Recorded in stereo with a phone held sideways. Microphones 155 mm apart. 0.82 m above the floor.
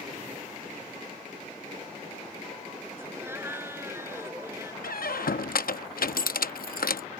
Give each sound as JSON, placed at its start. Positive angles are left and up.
{"t": 3.0, "sound": "laughter", "side_deg": -15}
{"t": 4.8, "sound": "a squeak", "side_deg": 85}